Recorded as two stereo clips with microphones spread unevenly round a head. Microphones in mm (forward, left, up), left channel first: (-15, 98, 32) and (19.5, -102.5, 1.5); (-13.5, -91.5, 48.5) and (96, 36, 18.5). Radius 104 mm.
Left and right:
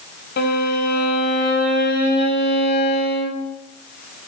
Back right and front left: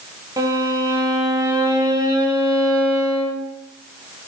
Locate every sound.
0.4 s a violin: 130° left, 3 m